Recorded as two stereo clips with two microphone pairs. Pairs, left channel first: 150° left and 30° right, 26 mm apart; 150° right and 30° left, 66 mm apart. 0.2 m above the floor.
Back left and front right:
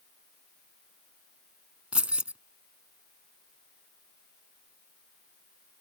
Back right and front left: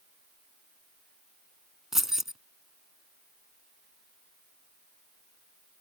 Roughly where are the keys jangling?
Ahead right.